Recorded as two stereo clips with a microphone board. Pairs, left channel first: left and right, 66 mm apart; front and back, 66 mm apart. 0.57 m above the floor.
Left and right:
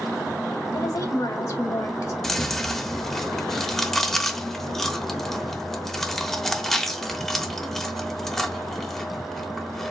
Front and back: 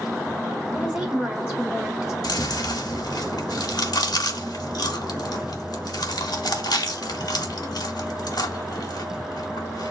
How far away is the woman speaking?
About 1.7 m.